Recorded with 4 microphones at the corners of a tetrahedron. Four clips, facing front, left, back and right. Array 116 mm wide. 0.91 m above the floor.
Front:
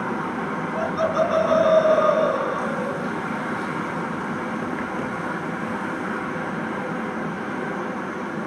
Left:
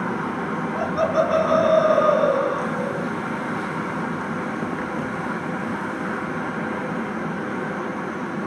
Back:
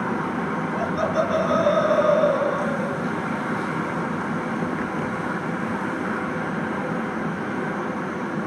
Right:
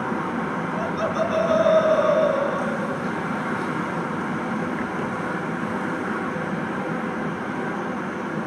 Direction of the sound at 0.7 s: 85° left.